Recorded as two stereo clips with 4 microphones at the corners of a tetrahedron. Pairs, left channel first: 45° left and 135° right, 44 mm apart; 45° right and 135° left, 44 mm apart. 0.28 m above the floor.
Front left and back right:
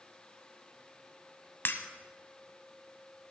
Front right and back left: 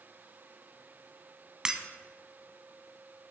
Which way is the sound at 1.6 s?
65° left.